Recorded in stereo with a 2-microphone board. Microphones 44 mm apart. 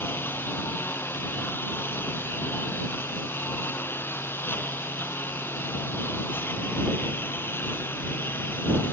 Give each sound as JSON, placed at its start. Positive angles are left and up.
{"t": 0.0, "sound": "a lawn mower", "side_deg": 55}